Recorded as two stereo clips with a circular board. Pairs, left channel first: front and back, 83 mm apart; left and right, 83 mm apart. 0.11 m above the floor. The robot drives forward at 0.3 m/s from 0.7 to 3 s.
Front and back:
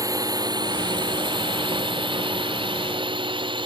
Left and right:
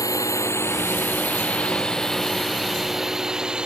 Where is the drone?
140° left; by 3.6 s 170° right.